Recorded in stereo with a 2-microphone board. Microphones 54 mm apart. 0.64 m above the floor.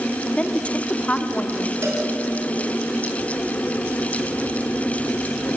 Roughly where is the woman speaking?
Left.